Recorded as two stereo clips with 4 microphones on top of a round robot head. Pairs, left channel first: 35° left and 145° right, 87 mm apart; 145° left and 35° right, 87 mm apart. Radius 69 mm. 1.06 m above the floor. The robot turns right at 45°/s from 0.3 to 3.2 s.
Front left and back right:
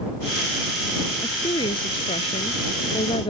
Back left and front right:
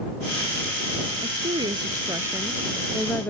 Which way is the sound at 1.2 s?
20° right.